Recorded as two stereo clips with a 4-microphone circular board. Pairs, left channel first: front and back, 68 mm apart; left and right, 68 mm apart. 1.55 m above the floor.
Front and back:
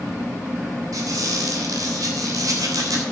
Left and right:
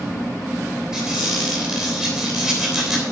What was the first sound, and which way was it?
A squeak, 170° right.